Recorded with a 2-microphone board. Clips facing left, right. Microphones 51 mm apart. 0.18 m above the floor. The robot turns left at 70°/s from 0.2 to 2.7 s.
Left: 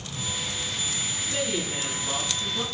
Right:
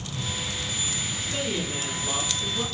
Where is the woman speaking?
105° right, 1.9 m; by 2.6 s 160° left, 1.9 m.